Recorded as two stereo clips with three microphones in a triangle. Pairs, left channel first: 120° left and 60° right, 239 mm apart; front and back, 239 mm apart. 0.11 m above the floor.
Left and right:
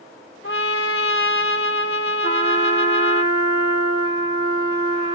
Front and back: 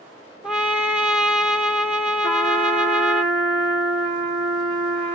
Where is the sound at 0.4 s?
95° left, 0.5 m.